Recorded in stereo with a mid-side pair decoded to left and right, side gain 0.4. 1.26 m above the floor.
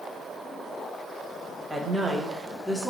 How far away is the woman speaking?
About 1.4 m.